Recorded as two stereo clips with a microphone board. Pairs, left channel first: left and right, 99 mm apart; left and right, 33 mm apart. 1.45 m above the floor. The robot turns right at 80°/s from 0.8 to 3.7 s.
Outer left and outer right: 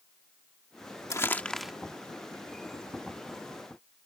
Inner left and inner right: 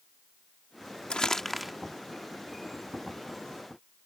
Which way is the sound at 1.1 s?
35° left (ahead or behind).